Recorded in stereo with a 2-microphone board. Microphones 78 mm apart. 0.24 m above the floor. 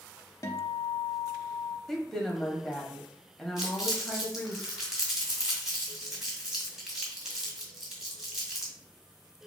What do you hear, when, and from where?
0.4 s a guitar: 40° left (ahead or behind), 0.6 m
1.9 s a woman speaking: 5° left (ahead or behind), 0.9 m
3.6 s crumpling: 5° right (ahead or behind), 2.0 m